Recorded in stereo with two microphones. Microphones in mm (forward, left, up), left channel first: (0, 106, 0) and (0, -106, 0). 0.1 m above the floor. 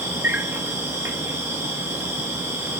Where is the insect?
10° right (ahead or behind), 1.2 m.